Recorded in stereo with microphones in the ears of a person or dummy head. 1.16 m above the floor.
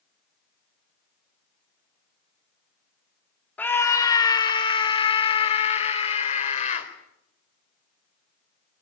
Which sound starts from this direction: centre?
A scream, at 3.6 s.